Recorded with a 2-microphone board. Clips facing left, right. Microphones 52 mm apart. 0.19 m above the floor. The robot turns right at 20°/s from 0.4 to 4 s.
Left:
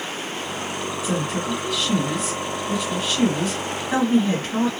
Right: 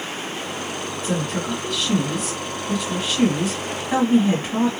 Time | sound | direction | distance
1.0 | a woman speaking | 10° left (ahead or behind) | 1.4 m